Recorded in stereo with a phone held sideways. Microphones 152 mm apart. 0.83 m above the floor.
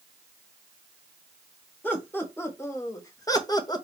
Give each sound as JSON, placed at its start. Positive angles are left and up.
{"t": 1.8, "sound": "laughter", "side_deg": 15, "distance_m": 1.6}